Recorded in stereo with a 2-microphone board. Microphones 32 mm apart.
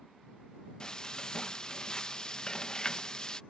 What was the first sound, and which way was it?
Frying, 25° left (ahead or behind).